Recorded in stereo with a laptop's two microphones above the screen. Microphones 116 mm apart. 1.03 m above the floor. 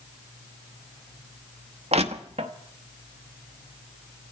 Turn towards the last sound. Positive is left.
turn(degrees=-75)  # may be behind; listen again after turning